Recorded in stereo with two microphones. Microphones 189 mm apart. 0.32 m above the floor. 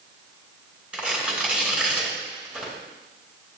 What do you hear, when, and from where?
0.9 s tearing paper: 5° right (ahead or behind), 2.5 m